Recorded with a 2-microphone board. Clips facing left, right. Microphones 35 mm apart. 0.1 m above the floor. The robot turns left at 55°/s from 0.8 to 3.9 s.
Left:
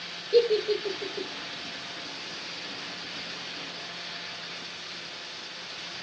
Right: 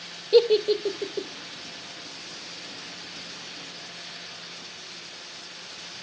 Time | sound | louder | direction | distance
0.3 | a giggle | right 4 dB | 50° right (ahead or behind) | 1.2 m